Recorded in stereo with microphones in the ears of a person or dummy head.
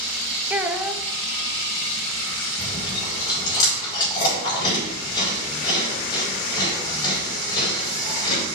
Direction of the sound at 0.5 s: 10° right (ahead or behind).